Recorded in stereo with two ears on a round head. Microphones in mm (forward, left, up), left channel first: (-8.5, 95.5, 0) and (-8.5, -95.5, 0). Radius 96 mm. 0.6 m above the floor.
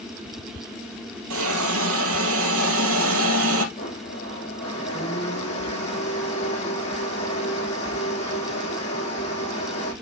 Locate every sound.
1.3 s a hiss: 85° right, 3 m
3.8 s a blender: 35° left (ahead or behind), 6 m